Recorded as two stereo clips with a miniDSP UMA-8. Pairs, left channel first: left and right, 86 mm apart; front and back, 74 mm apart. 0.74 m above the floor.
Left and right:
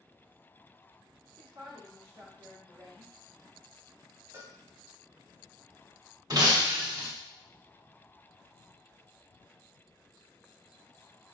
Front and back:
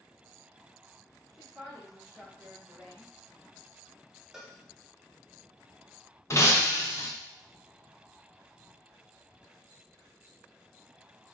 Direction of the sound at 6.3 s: 50° right.